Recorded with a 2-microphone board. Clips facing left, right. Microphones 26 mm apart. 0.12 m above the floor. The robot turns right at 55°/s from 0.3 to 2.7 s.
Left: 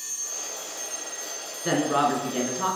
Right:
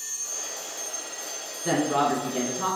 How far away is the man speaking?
About 1.1 m.